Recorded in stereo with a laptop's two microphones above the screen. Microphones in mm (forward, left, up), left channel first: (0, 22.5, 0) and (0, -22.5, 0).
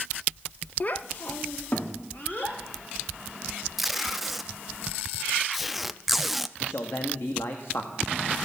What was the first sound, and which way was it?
A child speaking, 35° left (ahead or behind).